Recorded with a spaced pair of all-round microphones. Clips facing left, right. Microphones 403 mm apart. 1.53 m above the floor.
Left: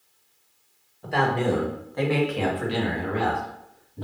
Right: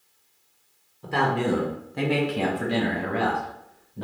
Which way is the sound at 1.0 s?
10° right (ahead or behind).